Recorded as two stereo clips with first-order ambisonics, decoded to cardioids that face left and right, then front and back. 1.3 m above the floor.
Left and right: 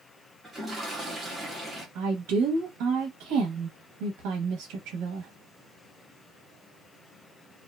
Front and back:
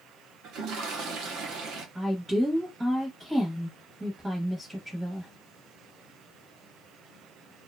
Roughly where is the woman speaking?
Right.